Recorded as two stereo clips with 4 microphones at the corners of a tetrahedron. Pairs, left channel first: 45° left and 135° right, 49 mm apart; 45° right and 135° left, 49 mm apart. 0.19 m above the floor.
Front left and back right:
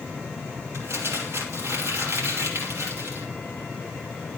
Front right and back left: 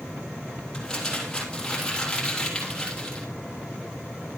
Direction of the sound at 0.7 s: 120° right.